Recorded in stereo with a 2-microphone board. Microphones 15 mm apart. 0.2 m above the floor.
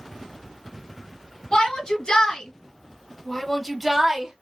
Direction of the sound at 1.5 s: 70° left (ahead or behind).